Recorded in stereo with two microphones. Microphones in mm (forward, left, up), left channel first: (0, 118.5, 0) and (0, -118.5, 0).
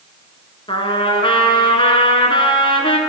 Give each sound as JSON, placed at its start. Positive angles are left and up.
{"t": 0.7, "sound": "a trumpet", "side_deg": 20, "distance_m": 1.4}